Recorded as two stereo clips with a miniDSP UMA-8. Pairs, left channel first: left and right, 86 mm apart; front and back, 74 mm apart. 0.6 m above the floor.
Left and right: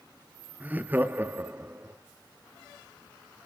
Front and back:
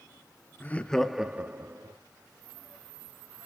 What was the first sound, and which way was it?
Laughter, 40° right.